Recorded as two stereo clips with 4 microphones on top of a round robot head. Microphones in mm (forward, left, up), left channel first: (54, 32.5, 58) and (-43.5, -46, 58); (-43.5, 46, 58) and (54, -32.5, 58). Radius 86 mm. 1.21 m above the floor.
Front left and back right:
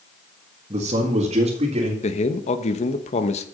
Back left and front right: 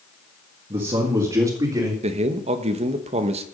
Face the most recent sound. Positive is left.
turn(degrees=0)